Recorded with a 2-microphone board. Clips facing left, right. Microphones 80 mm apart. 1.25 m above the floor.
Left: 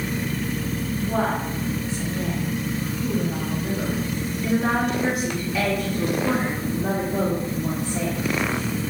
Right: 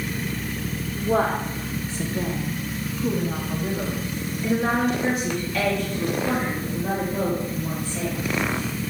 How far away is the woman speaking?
About 3 m.